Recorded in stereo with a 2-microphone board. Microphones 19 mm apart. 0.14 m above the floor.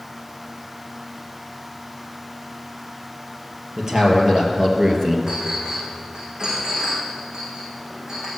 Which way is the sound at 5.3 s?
40° right (ahead or behind).